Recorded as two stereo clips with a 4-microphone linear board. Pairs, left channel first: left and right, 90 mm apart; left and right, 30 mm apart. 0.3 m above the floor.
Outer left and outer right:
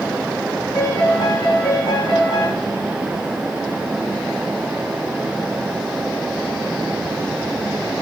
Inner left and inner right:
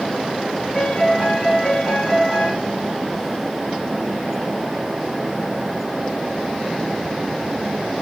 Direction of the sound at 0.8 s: 55° left (ahead or behind).